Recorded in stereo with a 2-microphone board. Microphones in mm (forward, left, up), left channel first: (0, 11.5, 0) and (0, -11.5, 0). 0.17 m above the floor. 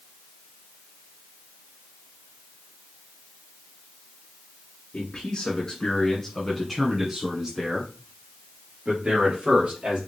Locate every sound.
4.9 s a man speaking: 45° left (ahead or behind), 1.7 m; by 10.0 s 55° right (ahead or behind), 3 m